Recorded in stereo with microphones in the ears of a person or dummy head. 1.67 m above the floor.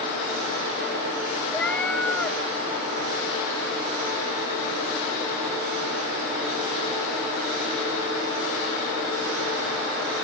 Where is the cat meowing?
5° left (ahead or behind).